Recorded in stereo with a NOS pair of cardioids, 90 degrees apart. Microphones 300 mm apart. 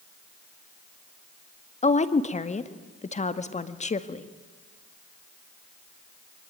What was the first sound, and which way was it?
A woman speaking, 25° left.